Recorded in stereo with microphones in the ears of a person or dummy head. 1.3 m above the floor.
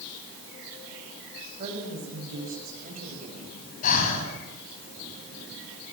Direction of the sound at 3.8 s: 50° left (ahead or behind).